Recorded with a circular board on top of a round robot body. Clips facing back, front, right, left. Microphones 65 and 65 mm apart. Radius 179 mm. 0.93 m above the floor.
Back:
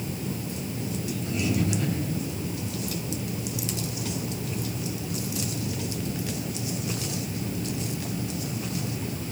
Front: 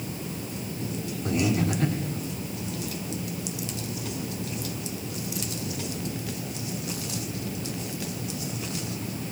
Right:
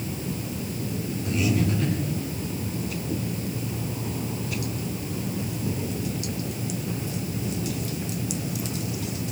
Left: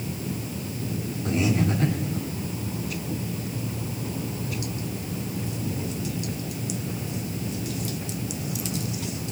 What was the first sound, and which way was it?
Breathing, 35° left.